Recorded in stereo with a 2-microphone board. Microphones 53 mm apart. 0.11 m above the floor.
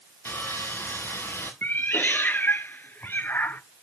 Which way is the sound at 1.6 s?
40° left (ahead or behind).